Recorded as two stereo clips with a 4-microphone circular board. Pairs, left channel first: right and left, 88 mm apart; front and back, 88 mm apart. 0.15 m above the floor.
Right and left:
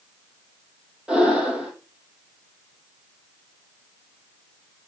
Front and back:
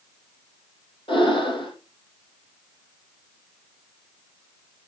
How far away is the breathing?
About 4.5 m.